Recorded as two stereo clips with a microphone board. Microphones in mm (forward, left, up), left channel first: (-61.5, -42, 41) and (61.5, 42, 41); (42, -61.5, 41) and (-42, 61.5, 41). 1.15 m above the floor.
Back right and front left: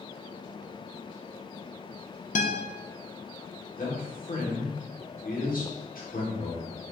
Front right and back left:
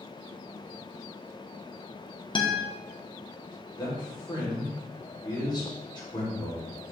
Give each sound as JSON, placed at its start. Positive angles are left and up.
{"t": 2.4, "sound": "a guitar", "azimuth_deg": -115, "distance_m": 0.6}
{"t": 3.8, "sound": "a man speaking", "azimuth_deg": -120, "distance_m": 1.6}